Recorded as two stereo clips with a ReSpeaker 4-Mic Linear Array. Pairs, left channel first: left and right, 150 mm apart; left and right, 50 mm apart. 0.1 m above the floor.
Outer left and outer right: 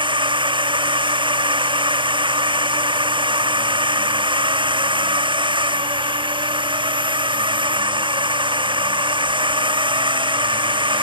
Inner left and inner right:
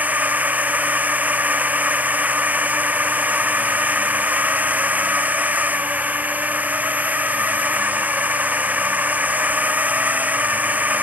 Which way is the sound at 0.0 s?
35° right (ahead or behind).